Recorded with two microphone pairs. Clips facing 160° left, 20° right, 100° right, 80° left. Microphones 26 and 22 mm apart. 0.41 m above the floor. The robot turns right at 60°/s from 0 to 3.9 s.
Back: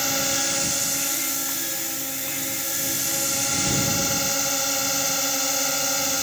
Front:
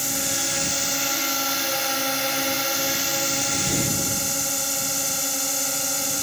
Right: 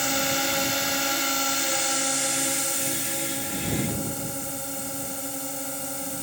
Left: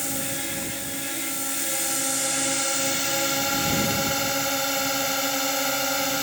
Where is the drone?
145° right; by 6.2 s 85° left.